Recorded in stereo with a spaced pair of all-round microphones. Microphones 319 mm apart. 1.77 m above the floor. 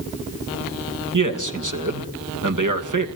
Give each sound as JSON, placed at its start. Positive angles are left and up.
{"t": 1.1, "sound": "a man speaking", "side_deg": -60, "distance_m": 2.5}